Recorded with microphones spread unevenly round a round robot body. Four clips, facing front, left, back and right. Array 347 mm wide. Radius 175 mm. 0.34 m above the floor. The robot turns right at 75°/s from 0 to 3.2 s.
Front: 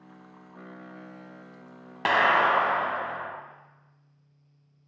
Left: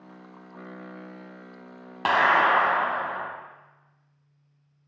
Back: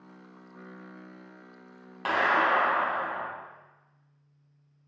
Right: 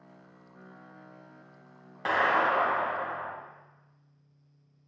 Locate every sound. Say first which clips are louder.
2.0 s a clap: left 5 dB, front 3 dB; 45° left, 1.9 m; by 3.3 s 130° left, 1.9 m